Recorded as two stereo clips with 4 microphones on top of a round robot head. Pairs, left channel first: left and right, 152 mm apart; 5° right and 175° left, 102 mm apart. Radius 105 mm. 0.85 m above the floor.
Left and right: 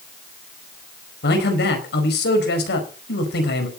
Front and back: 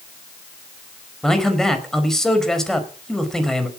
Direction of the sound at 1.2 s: 80° left.